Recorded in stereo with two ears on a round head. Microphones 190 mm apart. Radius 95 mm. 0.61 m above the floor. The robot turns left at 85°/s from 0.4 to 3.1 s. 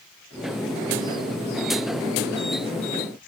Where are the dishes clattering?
No dishes clattering in this recording.